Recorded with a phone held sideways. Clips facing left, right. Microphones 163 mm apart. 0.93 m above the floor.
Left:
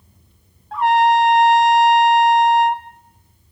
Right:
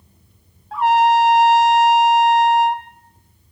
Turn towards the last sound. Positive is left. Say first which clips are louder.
# even
turn(degrees=0)  # may be behind; listen again after turning